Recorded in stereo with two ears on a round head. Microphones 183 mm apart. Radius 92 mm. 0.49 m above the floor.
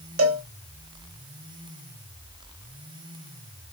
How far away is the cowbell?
About 0.9 m.